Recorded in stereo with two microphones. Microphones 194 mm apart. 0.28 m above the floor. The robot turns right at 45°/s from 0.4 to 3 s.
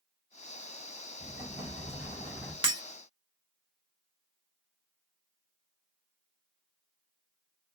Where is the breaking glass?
25° right (ahead or behind), 0.9 m; by 2.8 s 20° right (ahead or behind), 0.9 m.